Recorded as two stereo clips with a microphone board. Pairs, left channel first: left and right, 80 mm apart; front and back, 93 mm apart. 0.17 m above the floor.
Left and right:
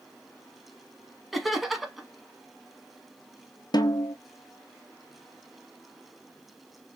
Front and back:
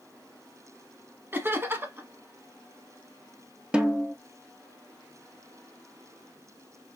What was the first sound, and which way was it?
Laughter, 175° right.